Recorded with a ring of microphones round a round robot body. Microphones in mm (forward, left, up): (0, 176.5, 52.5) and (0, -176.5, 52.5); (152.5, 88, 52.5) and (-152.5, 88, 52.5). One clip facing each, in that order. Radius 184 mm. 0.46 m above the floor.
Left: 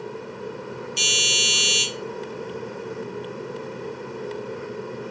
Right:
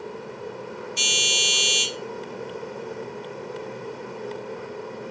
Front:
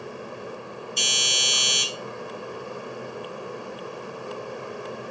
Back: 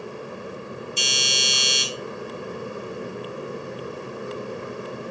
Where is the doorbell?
110° left, 1.1 m.